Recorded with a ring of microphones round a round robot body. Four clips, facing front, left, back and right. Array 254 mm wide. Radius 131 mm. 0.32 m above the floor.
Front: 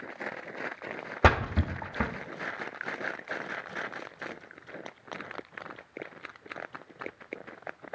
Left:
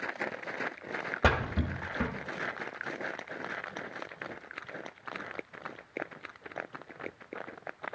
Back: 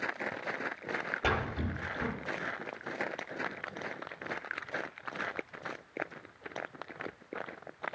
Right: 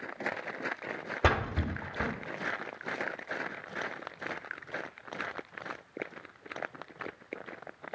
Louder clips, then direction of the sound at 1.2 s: Even, front 9 dB; 5° left.